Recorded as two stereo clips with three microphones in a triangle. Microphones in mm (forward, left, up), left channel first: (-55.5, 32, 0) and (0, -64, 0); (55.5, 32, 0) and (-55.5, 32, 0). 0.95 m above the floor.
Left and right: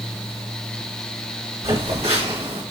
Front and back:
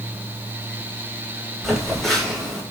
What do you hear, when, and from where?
1.6 s a phone buzzing: 90° right, 1.9 m